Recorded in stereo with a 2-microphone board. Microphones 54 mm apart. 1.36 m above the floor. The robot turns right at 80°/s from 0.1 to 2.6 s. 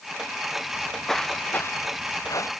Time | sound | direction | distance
0.7 | footsteps | 25° right (ahead or behind) | ?